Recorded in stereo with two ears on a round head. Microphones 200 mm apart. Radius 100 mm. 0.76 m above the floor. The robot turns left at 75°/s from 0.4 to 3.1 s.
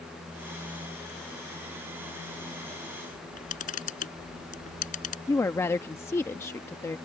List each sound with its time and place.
3.1 s a camera shutter: 35° left (ahead or behind)
5.3 s a woman speaking: 10° left (ahead or behind)